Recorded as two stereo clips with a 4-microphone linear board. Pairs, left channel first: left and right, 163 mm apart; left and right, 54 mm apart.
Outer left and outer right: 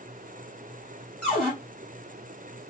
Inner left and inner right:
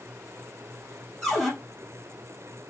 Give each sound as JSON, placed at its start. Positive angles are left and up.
{"t": 1.2, "sound": "a cupboard door", "side_deg": 5, "distance_m": 3.0}